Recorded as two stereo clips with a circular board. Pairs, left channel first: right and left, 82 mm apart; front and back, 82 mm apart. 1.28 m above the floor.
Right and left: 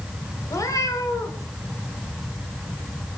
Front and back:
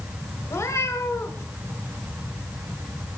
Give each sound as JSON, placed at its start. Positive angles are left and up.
{"t": 0.4, "sound": "a cat meowing", "azimuth_deg": -50, "distance_m": 2.5}